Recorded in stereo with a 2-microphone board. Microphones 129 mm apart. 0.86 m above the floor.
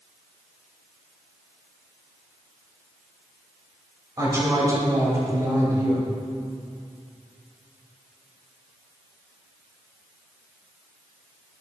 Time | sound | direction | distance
4.2 | a woman speaking | 25° right (ahead or behind) | 4 m